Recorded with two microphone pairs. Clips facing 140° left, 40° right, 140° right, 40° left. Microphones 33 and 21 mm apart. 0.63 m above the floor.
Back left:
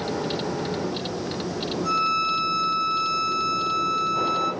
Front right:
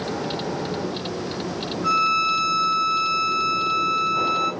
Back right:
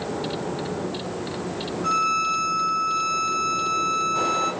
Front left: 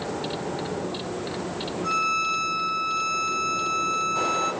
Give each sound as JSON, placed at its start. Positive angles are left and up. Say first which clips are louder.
{"t": 1.8, "sound": "a violin", "louder": "front right 4 dB, back right 2 dB", "azimuth_deg": -80, "distance_m": 1.9}